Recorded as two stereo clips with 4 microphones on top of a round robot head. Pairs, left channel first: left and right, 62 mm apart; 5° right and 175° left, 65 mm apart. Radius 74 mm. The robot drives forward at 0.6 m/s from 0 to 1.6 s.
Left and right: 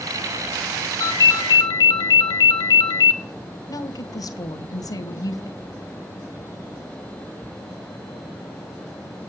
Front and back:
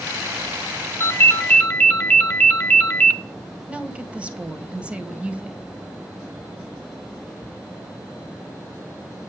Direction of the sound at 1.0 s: 55° left.